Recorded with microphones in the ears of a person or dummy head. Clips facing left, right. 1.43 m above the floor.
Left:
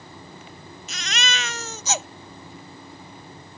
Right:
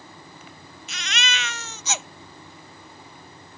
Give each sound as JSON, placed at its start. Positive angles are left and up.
{"t": 0.9, "sound": "a baby crying", "side_deg": 35}